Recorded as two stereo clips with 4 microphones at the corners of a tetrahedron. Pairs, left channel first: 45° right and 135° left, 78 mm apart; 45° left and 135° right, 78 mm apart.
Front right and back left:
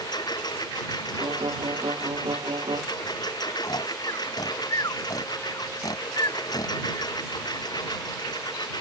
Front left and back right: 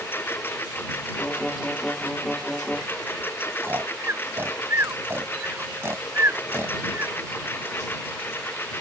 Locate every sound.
0.0 s a lawn mower: 15° right
1.2 s a violin: 125° left
3.6 s snoring: 75° right